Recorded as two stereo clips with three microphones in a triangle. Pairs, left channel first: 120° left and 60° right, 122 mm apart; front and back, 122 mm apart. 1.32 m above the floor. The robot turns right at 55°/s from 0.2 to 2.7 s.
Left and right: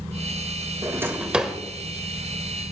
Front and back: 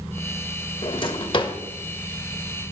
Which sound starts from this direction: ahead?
A drawer, at 0.8 s.